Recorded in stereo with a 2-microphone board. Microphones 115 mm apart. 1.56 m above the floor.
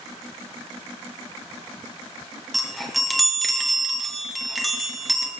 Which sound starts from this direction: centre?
A chime, at 2.5 s.